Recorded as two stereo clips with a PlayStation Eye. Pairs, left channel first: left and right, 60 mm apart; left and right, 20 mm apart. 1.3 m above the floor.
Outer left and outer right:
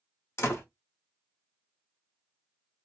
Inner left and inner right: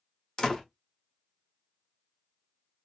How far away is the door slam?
About 1.1 m.